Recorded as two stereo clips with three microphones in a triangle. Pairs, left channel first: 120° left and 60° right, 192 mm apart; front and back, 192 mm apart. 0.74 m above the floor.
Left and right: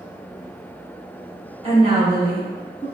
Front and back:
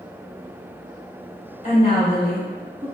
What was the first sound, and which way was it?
A woman speaking, 20° right.